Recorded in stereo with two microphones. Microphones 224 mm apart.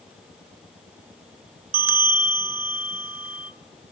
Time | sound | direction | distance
1.7 | a bell | 75° right (ahead or behind) | 1.0 m